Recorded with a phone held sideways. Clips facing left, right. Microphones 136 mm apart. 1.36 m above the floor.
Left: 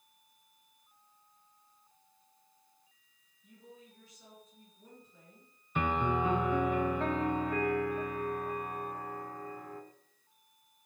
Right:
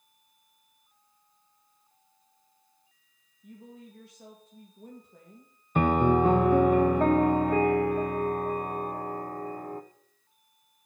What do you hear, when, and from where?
3.4 s a woman speaking: 70° right (ahead or behind), 2.5 m
5.8 s a piano: 50° right (ahead or behind), 0.6 m